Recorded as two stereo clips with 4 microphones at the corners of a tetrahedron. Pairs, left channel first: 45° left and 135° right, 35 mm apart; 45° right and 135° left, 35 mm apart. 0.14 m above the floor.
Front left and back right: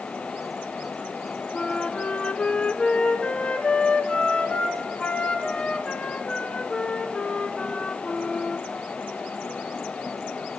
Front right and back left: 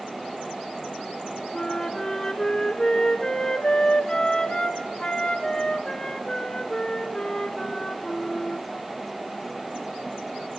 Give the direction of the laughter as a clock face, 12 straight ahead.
I don't hear laughter.